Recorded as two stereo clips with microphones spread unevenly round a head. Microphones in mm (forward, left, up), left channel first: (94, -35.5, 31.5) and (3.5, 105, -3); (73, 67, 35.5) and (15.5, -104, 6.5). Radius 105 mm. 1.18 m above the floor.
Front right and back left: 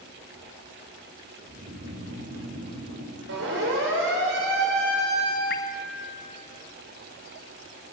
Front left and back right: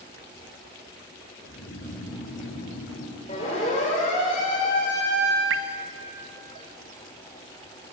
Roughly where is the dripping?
Right.